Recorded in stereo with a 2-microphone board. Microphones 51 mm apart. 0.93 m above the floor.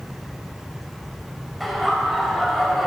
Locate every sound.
1.6 s laughter: centre (ahead or behind), 4 m